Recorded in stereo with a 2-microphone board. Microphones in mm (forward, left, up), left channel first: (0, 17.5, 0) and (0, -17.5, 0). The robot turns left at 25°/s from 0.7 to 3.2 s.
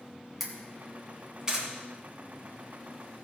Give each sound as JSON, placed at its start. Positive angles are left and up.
{"t": 0.4, "sound": "a camera shutter", "side_deg": -5, "distance_m": 3.0}